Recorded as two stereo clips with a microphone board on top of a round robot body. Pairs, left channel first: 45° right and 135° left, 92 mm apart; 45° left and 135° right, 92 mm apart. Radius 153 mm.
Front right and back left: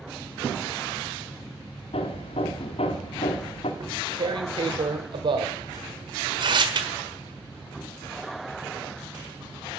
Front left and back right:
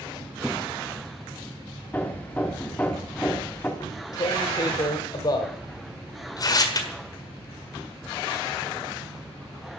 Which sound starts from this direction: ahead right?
Hammering, at 1.9 s.